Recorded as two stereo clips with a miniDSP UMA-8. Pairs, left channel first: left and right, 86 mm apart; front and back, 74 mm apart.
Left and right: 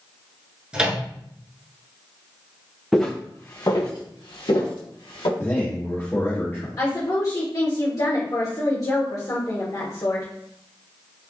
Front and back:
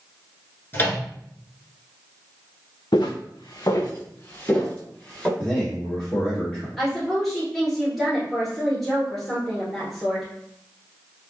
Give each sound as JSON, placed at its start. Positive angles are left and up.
{"t": 0.7, "sound": "a microwave", "azimuth_deg": -25, "distance_m": 1.2}
{"t": 2.9, "sound": "footsteps", "azimuth_deg": 0, "distance_m": 0.7}
{"t": 5.4, "sound": "a man speaking", "azimuth_deg": 65, "distance_m": 1.9}
{"t": 6.8, "sound": "a woman speaking", "azimuth_deg": 85, "distance_m": 1.5}